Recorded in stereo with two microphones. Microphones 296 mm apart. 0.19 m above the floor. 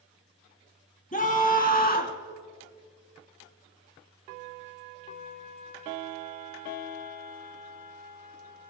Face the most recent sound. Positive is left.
turn(degrees=30)  # may be behind; listen again after turning